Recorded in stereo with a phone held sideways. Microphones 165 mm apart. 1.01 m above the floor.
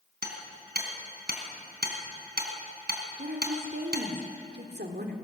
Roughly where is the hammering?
Right.